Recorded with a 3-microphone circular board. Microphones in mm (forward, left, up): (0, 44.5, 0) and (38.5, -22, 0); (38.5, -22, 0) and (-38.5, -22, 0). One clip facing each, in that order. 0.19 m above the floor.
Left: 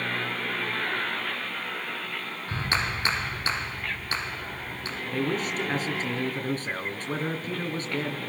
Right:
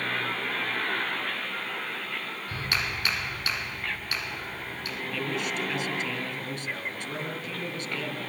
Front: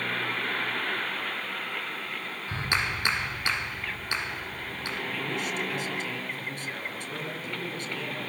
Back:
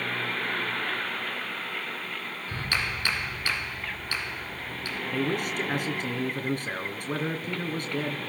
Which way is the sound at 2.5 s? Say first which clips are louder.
Left 4 dB, front 2 dB; 65° left.